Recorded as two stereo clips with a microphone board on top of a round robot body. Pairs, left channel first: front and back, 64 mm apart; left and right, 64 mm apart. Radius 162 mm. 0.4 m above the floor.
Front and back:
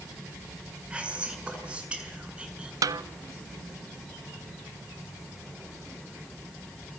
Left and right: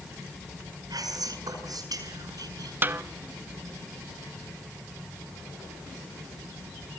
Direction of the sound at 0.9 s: 105° right.